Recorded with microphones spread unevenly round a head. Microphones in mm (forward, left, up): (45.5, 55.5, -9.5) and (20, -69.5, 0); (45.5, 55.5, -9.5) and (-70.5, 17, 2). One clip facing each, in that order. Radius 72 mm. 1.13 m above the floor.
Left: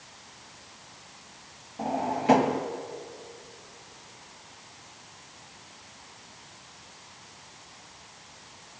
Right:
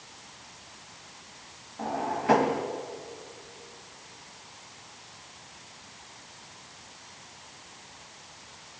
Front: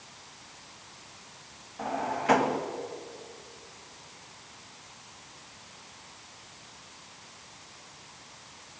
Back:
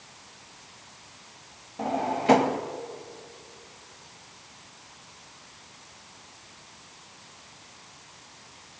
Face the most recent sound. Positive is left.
turn(degrees=150)